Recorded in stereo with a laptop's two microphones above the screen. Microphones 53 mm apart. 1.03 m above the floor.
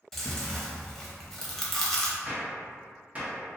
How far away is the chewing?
About 0.7 m.